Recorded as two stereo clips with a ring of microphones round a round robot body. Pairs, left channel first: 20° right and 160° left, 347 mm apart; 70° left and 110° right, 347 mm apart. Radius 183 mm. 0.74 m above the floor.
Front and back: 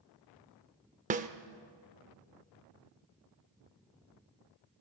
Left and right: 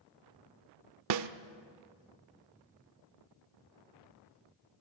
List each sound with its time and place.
1.1 s a snare drum: 140° right, 0.5 m